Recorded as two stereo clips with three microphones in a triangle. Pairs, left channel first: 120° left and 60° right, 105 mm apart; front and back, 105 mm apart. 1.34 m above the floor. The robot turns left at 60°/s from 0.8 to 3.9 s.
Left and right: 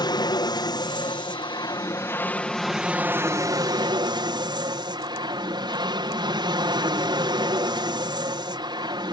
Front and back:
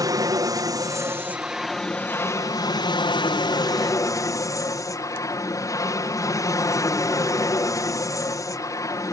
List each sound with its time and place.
0.0 s an aircraft: 140° left; by 9.1 s 45° right